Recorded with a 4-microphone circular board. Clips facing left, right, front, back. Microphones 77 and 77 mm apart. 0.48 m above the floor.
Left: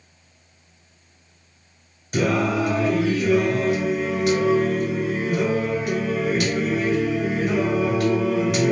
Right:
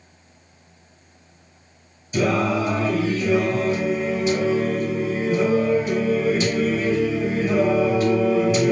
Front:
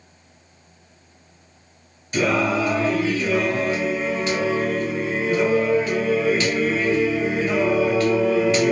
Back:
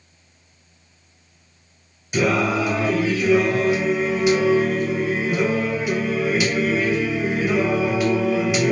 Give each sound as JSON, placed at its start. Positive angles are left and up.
{"t": 2.1, "sound": "singing", "azimuth_deg": 100, "distance_m": 2.5}